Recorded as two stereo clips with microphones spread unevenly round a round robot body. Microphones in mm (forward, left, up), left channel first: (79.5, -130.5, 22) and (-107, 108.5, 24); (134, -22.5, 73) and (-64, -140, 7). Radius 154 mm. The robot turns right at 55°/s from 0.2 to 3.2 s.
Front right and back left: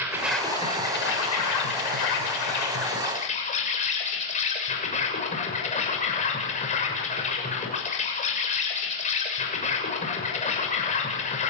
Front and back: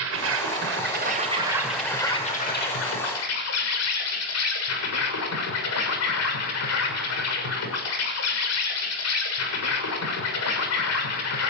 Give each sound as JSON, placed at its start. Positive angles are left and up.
{"t": 0.0, "sound": "an insect", "azimuth_deg": -150, "distance_m": 6.5}